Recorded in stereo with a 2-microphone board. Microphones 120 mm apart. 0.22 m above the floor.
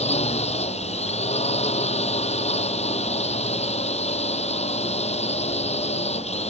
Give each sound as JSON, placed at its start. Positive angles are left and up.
{"t": 0.0, "sound": "a drone", "side_deg": 65}